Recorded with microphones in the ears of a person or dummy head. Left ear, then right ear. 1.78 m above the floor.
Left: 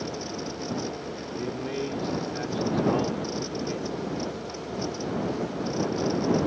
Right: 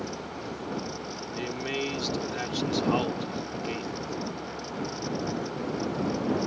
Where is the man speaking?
75° right (ahead or behind).